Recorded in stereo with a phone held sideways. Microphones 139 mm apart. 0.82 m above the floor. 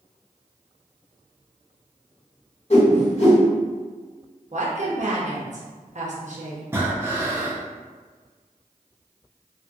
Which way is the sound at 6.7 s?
15° right (ahead or behind).